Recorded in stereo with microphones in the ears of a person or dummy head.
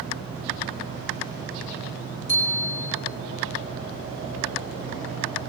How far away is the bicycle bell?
About 8.5 m.